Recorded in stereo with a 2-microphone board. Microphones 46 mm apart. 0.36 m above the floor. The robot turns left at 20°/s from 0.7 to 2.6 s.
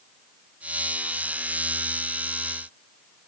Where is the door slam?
I don't hear a door slam.